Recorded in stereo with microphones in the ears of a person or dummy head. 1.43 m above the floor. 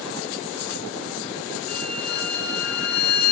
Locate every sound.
1.7 s a violin: 80° left, 2 m